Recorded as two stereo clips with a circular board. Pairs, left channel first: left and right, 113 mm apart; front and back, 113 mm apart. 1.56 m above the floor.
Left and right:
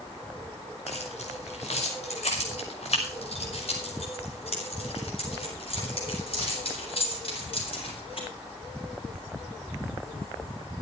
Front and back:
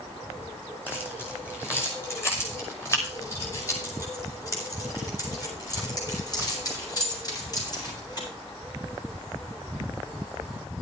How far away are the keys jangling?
About 5 m.